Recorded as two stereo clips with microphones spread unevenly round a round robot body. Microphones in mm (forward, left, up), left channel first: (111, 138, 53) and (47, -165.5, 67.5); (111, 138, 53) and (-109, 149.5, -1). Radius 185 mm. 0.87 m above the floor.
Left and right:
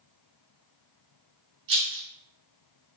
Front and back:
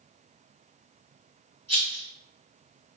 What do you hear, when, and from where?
1.7 s a rattle: 75° right, 1.5 m